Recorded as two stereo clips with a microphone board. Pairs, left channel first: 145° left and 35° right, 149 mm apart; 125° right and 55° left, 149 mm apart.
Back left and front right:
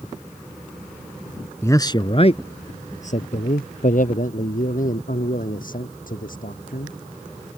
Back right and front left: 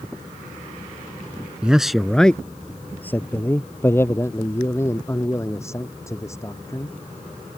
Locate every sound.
1.6 s a man speaking: 125° left; by 7.0 s 165° left